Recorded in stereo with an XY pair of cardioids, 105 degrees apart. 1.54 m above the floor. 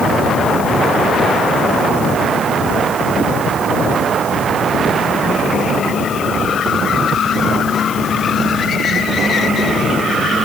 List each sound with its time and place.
Only background noise.